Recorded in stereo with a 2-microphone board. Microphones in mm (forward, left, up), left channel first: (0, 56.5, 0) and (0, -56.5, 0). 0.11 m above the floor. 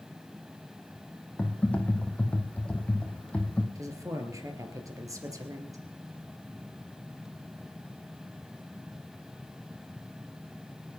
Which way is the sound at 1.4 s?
10° left (ahead or behind).